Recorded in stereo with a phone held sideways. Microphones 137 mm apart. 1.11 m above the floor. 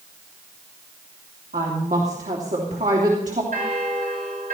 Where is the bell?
80° right, 4 m.